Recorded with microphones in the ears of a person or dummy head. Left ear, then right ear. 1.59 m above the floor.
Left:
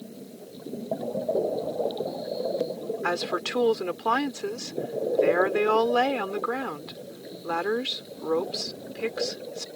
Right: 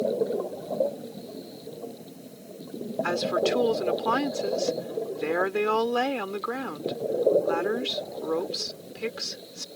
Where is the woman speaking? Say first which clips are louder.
Right 3 dB; 10° left (ahead or behind).